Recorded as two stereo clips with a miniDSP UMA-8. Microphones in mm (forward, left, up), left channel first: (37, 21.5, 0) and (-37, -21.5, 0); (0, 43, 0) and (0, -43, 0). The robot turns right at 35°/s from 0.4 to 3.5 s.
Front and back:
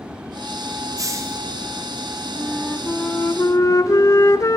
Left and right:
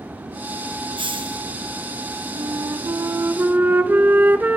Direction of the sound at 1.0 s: 105° right.